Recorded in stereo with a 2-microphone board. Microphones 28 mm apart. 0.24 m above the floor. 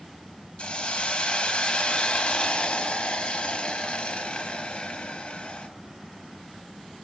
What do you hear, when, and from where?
0.6 s a hiss: 40° left (ahead or behind), 0.6 m